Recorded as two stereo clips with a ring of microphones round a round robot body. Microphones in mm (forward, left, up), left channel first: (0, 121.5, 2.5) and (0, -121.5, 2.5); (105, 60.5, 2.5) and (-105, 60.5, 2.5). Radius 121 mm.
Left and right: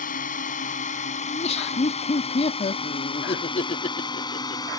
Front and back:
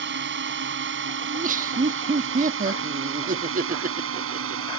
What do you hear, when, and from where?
0.0 s a drone: 150° left; by 4.8 s 165° left
1.3 s laughter: 145° left